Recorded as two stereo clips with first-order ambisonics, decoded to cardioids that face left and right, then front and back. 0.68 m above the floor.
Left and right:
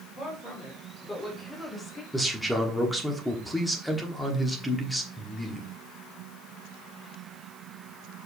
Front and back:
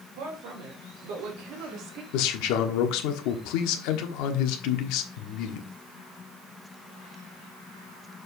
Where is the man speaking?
Straight ahead, 1.2 m.